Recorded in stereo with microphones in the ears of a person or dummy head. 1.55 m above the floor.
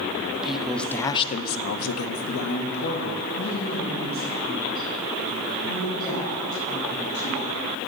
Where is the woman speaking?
5° right (ahead or behind), 1.0 m; by 7.7 s 40° left (ahead or behind), 4.5 m.